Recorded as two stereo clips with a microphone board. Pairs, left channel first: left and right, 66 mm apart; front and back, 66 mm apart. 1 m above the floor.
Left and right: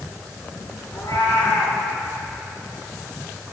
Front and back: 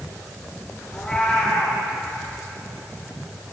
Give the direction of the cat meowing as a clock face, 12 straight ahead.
9 o'clock.